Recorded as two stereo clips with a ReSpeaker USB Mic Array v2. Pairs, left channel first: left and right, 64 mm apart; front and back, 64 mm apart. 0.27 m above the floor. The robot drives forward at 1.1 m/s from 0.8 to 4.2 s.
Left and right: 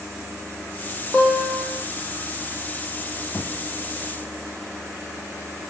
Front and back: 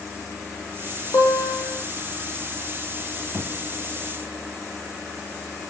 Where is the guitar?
10° right, 8.5 m.